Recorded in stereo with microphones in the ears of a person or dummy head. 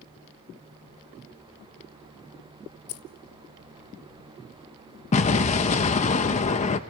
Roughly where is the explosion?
Left.